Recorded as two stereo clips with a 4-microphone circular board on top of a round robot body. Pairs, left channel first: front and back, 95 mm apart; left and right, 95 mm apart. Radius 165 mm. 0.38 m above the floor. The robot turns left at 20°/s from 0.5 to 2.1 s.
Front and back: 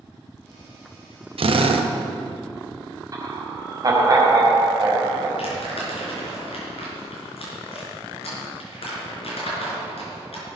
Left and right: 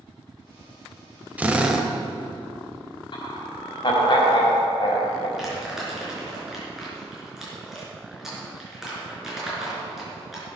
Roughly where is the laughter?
Behind left.